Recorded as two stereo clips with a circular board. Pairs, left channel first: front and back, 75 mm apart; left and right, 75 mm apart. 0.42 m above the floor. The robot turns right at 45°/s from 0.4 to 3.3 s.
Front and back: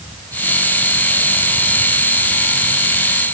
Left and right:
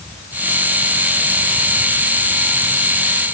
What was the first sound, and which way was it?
Only background noise.